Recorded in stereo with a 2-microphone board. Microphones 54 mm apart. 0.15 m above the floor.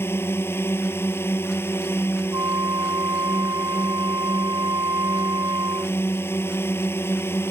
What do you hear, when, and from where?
0.0 s a drone: 50° left (ahead or behind)
2.3 s a flute: 80° right